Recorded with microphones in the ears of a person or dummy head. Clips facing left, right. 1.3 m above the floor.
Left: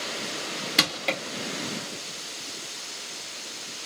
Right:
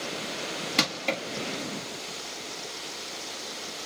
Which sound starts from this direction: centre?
Crushing, at 0.8 s.